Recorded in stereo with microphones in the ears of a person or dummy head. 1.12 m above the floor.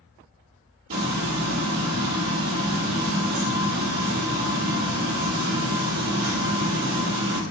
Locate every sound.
0.9 s frying: 55° right (ahead or behind), 4.5 m